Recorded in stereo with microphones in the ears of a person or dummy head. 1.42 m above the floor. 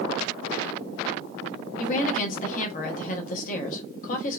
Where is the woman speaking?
45° left (ahead or behind), 0.8 m.